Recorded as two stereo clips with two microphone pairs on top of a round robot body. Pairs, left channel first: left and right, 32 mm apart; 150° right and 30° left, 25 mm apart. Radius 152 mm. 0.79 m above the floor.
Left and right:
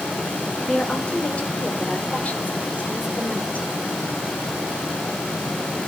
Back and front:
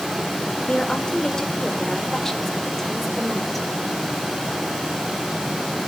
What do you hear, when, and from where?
0.6 s a woman speaking: 155° left, 3 m; by 3.7 s 125° left, 4 m